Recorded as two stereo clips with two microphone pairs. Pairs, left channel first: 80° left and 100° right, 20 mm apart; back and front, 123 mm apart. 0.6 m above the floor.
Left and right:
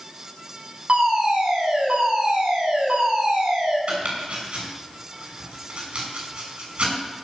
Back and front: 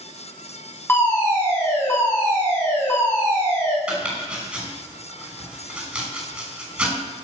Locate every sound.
0.9 s a fire alarm: 110° right, 7 m
3.9 s chopping: 85° right, 6 m